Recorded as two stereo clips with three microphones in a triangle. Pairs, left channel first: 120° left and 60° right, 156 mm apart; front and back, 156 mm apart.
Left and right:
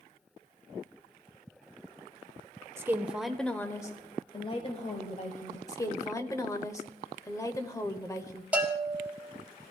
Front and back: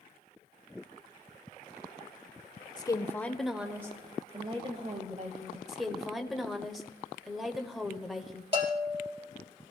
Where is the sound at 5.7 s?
90° left, 1.0 m.